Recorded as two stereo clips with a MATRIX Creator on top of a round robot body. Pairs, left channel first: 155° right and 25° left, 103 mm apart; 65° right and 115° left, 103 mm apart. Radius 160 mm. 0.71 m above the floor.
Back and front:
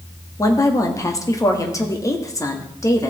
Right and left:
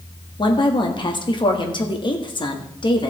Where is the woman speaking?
100° right, 1.8 m.